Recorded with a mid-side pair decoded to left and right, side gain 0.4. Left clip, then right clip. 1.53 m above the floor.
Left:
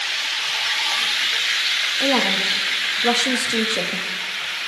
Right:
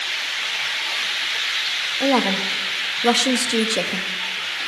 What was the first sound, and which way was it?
A woman speaking, 25° right.